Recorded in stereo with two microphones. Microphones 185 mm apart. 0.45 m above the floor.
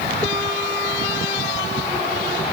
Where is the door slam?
I don't hear a door slam.